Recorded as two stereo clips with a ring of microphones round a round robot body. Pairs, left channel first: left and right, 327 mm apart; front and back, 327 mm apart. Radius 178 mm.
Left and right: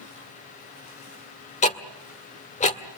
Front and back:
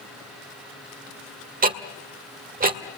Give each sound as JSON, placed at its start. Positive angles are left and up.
{"t": 1.6, "sound": "ticking", "azimuth_deg": 140, "distance_m": 1.6}